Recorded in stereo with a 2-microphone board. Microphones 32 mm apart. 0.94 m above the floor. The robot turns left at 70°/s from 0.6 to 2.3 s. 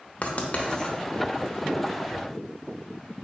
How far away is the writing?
About 0.6 m.